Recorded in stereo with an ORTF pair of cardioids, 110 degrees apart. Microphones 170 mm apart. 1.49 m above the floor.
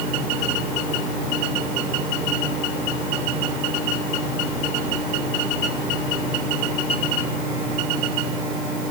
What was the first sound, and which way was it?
Only background noise.